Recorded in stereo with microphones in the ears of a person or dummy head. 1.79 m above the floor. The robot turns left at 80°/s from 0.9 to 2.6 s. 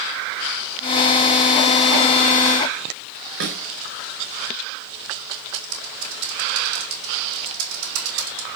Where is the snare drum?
65° right (ahead or behind), 4 m.